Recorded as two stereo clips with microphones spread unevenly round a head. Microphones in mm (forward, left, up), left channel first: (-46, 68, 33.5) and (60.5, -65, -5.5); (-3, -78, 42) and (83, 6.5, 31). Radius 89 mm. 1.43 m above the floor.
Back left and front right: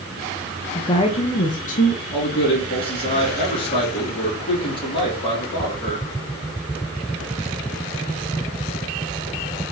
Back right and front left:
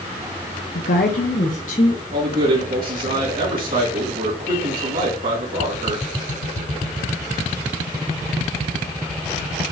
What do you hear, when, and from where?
0.8 s a woman speaking: 160° right, 0.5 m; by 2.0 s 175° left, 1.5 m
2.1 s a man speaking: 65° left, 3 m